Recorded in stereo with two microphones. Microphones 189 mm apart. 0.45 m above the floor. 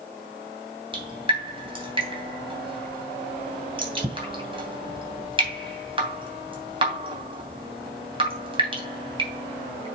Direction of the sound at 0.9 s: 25° right (ahead or behind).